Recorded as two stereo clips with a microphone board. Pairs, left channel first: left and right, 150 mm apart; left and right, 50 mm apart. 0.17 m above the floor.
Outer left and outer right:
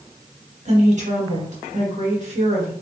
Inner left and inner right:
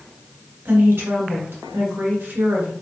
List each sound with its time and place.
0.7 s a woman speaking: 50° right (ahead or behind), 2.5 m